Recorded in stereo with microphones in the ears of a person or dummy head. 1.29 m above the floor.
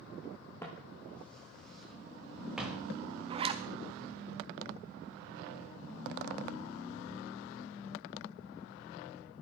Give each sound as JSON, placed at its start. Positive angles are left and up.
{"t": 0.6, "sound": "footsteps", "side_deg": 15, "distance_m": 3.0}
{"t": 3.3, "sound": "a zipper", "side_deg": -35, "distance_m": 1.0}